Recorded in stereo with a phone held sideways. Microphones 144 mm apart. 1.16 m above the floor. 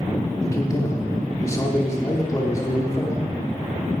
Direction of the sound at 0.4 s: 25° left (ahead or behind).